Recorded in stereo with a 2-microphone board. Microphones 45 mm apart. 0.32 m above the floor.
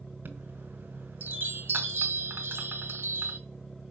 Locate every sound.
0.2 s a chime: 50° right (ahead or behind), 2 m